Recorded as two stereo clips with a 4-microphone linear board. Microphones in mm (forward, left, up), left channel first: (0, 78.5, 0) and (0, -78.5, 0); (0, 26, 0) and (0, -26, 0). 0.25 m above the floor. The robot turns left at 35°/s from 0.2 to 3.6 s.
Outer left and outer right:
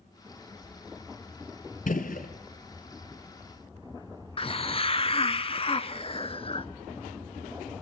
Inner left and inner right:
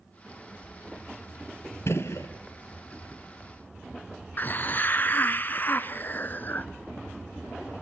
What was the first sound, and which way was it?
A gunshot, 60° left (ahead or behind).